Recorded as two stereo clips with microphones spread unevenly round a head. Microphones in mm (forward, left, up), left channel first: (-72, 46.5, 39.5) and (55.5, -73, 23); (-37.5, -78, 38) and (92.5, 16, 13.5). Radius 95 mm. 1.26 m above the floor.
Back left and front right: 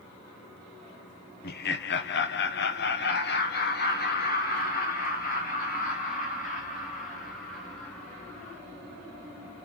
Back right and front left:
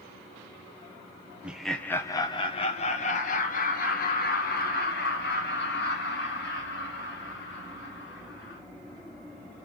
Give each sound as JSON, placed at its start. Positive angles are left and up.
{"t": 1.4, "sound": "laughter", "azimuth_deg": 110, "distance_m": 0.9}